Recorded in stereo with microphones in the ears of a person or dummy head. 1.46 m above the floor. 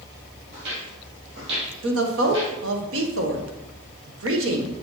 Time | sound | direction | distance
0.5 | footsteps | 55° right (ahead or behind) | 2.5 m
1.8 | a woman speaking | 80° right | 1.4 m